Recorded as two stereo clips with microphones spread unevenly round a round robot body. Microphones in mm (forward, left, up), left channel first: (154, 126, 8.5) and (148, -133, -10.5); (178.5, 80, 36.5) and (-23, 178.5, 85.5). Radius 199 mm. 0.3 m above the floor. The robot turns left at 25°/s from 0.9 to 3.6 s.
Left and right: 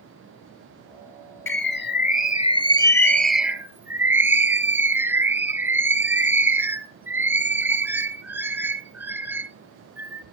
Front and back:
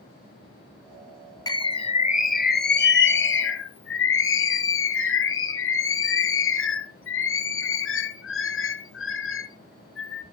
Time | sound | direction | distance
1.5 | a bird | 45° left | 1.1 m